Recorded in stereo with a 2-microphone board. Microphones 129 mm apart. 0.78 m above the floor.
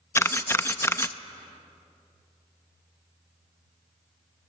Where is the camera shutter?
20° left (ahead or behind), 0.5 m.